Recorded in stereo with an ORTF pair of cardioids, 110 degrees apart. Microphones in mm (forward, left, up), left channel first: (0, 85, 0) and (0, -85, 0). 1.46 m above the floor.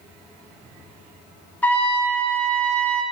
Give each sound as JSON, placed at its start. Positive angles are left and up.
{"t": 1.6, "sound": "a trumpet", "azimuth_deg": 10, "distance_m": 1.0}